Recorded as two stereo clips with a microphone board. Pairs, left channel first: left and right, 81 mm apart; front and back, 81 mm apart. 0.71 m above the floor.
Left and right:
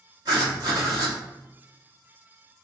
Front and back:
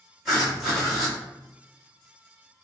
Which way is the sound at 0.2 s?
95° right.